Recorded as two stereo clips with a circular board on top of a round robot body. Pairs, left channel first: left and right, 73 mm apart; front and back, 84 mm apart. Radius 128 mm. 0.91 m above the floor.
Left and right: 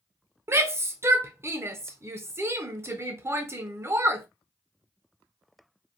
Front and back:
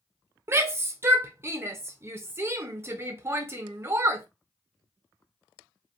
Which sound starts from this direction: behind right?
A shout, at 0.5 s.